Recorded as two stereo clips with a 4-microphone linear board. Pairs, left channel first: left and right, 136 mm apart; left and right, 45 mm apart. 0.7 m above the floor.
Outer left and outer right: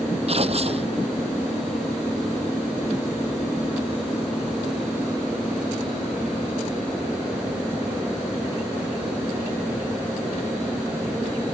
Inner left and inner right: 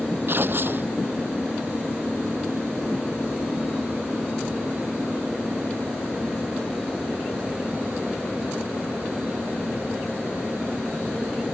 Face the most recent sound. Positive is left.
turn(degrees=-50)  # may be behind; listen again after turning